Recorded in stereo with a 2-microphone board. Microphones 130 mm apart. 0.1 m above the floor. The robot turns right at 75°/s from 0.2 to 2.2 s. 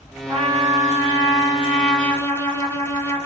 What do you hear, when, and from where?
0.3 s a trumpet: 125° right, 2.5 m; by 3.3 s 20° left, 2.5 m